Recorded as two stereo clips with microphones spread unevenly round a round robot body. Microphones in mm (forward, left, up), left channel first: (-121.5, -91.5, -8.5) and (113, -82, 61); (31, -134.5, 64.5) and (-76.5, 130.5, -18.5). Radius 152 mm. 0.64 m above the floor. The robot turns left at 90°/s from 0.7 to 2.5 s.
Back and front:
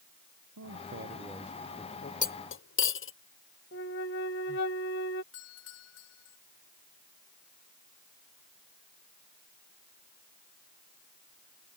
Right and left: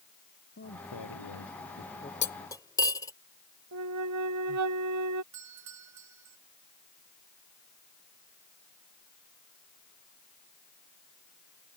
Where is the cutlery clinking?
125° right; by 3.1 s 150° right.